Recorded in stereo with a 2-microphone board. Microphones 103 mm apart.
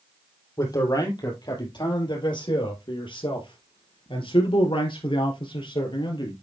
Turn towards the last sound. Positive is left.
turn(degrees=50)  # may be behind; listen again after turning